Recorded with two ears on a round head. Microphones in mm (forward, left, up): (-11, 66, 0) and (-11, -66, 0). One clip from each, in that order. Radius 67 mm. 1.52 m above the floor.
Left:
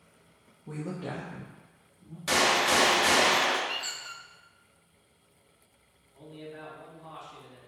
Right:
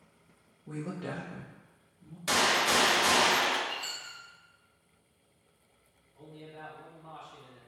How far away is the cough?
No cough in this recording.